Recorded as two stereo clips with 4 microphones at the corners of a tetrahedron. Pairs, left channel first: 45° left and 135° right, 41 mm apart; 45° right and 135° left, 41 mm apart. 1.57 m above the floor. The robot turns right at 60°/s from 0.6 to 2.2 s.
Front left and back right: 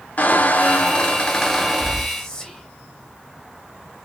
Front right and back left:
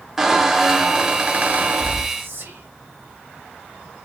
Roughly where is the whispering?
Behind left.